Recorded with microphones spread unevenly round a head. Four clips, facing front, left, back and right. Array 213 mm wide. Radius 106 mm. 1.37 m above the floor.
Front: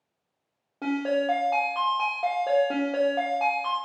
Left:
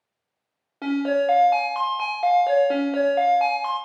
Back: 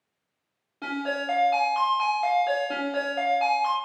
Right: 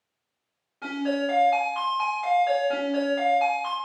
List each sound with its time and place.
0.8 s a ringtone: 50° left, 1.1 m